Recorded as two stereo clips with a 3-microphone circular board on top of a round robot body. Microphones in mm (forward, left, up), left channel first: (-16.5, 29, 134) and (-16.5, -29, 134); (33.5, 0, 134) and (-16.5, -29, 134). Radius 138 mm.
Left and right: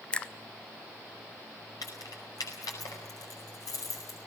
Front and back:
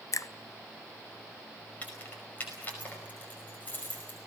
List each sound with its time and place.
0.1 s a finger snap: 20° left, 0.8 m
1.8 s keys jangling: 90° left, 5 m